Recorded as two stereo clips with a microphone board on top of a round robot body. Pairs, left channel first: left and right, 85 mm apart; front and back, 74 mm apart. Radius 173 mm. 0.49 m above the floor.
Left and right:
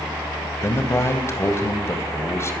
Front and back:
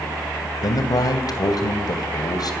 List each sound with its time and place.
0.6 s a man speaking: 30° left, 3 m